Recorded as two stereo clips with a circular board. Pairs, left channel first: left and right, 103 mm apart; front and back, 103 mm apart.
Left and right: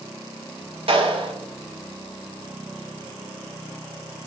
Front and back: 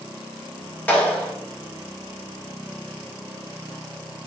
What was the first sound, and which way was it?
A clap, 75° right.